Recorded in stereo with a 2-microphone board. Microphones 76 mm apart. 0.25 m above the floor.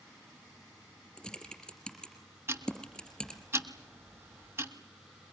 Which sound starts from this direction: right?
Ticking, at 2.5 s.